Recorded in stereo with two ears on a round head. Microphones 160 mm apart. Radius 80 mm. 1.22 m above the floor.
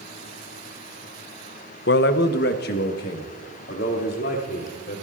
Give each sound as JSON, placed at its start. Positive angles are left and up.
{"t": 1.9, "sound": "a man speaking", "side_deg": 65, "distance_m": 0.6}